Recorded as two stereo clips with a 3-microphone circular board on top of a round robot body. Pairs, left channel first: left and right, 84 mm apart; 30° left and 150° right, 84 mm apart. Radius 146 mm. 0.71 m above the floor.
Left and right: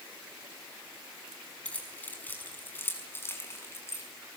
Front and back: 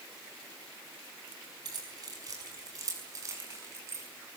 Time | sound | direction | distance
1.6 | keys jangling | 165° left | 5.5 m